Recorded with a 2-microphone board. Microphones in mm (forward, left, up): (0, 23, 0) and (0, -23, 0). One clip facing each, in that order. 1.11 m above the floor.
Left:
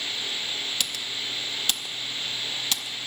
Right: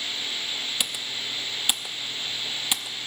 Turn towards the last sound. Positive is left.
turn(degrees=-15)  # may be behind; listen again after turning